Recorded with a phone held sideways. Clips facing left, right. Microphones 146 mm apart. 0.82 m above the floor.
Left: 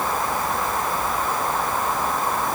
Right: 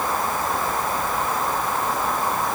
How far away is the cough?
I don't hear a cough.